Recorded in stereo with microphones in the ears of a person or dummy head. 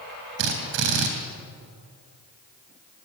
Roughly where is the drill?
Right.